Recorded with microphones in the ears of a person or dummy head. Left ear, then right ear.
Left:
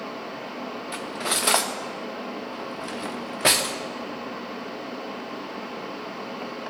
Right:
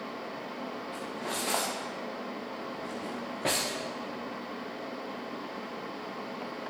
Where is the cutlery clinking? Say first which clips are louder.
Left 10 dB; 25° left (ahead or behind), 0.6 m.